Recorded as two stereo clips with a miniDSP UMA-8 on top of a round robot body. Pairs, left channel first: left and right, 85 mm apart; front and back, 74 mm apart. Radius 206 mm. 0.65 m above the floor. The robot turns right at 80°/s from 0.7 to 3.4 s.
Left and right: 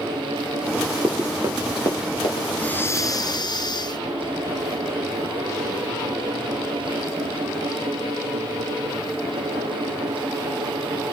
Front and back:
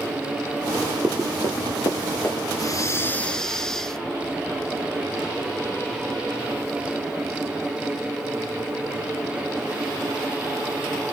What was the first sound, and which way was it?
Running footsteps, 130° right.